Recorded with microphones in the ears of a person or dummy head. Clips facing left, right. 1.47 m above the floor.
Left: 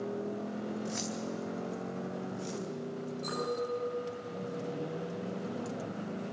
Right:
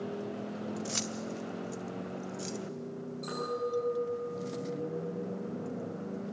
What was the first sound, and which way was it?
Keys jangling, 45° right (ahead or behind).